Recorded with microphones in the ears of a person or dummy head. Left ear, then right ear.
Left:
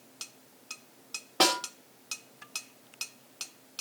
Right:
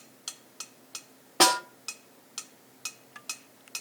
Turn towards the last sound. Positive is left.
turn(degrees=5)  # may be behind; listen again after turning